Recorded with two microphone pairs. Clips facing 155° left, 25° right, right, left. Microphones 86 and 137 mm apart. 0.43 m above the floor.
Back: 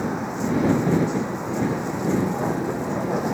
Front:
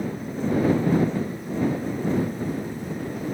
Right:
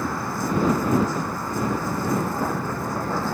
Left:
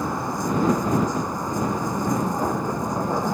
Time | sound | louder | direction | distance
0.0 | a vehicle | back 3 dB, left 1 dB | 165° left | ?